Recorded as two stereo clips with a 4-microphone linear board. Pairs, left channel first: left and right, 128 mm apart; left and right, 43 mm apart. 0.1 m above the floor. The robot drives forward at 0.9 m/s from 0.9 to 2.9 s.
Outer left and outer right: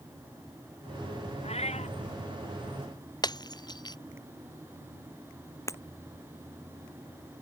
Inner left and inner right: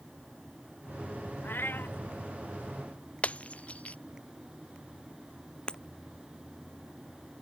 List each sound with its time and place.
1.4 s a cat meowing: 55° left (ahead or behind); by 1.9 s 60° left (ahead or behind)
3.2 s breaking glass: 30° left (ahead or behind)
5.7 s breaking glass: 25° left (ahead or behind)